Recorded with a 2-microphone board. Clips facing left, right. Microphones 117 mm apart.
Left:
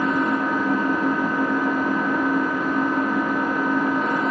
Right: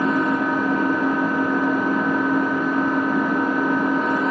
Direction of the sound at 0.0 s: 80° right.